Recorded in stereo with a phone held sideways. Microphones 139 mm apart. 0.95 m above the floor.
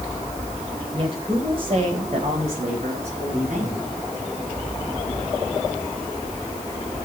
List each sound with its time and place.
0.9 s a woman speaking: 40° right (ahead or behind), 4 m; by 3.9 s 60° right (ahead or behind), 4.5 m